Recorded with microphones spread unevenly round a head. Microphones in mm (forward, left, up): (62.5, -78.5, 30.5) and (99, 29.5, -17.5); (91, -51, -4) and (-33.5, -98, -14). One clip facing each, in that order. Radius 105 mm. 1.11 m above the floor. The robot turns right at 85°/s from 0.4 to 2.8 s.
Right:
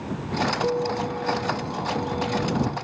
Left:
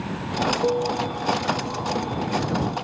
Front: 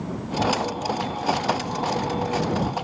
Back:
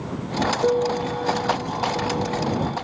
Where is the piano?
150° left; by 2.7 s 35° right.